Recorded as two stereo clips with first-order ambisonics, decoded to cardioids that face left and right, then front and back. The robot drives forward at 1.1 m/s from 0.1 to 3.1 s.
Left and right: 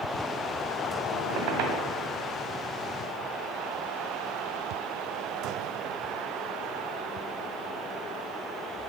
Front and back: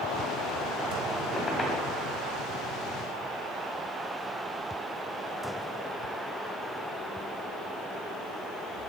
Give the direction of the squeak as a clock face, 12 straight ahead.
2 o'clock.